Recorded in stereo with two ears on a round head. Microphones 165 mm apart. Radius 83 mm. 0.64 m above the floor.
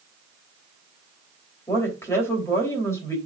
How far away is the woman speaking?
About 3 m.